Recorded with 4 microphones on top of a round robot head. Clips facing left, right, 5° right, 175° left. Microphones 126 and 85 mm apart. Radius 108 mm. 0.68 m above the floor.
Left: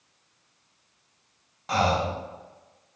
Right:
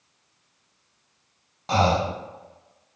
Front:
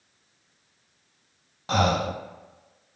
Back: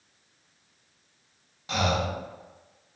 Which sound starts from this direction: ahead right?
Breathing, at 1.7 s.